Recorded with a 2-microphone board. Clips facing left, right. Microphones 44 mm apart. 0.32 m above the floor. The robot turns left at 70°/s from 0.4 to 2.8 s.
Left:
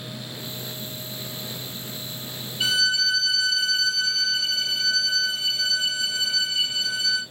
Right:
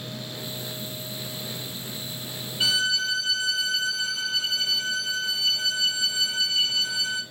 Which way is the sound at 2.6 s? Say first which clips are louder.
Left 2 dB; 20° right (ahead or behind).